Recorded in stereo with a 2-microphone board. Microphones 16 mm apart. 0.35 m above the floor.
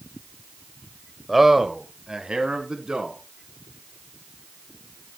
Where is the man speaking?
10° right (ahead or behind), 1.0 m; by 3.2 s 65° right (ahead or behind), 3.5 m.